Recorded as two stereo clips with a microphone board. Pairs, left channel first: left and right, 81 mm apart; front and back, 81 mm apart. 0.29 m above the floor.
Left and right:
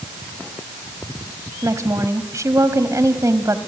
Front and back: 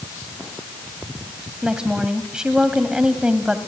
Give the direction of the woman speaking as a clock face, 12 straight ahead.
3 o'clock.